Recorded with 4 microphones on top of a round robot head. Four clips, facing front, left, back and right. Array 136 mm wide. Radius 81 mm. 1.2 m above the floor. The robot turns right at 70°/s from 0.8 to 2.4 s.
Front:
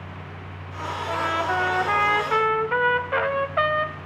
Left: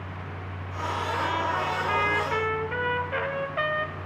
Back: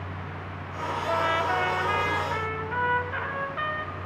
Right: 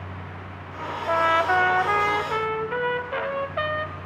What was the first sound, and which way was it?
A trumpet, 110° right.